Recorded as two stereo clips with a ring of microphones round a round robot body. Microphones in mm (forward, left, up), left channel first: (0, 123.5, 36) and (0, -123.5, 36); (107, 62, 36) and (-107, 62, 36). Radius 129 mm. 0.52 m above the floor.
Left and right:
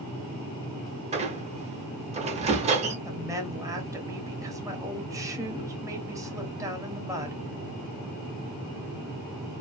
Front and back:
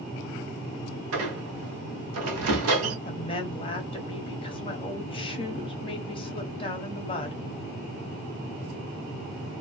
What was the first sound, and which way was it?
A squeak, 155° right.